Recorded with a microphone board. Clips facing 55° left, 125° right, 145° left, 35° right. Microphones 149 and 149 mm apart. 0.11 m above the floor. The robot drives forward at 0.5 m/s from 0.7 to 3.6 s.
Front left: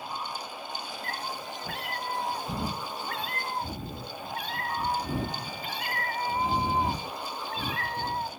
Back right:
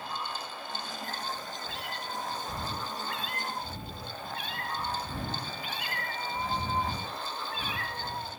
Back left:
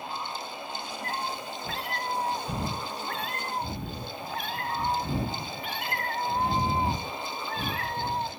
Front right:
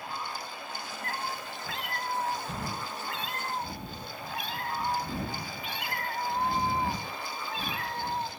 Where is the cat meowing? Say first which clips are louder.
Front left 3 dB, back left 2 dB; 80° left, 3 m; by 8.3 s 105° left, 3 m.